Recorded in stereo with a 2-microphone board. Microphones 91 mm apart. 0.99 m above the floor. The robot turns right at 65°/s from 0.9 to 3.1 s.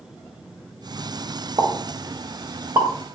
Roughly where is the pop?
Right.